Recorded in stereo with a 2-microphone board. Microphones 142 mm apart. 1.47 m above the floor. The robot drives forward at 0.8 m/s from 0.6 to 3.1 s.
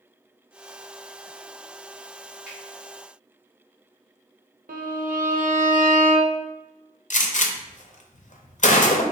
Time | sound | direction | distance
2.5 | a finger snap | 5° right (ahead or behind) | 1.9 m
4.7 | a violin | 75° right (ahead or behind) | 0.5 m
7.1 | a gunshot | 60° left (ahead or behind) | 0.5 m